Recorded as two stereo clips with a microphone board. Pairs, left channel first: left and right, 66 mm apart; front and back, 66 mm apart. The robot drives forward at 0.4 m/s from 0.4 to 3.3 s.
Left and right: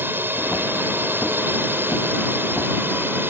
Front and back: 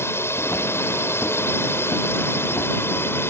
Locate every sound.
0.0 s a drone: 40° right; by 3.3 s 45° right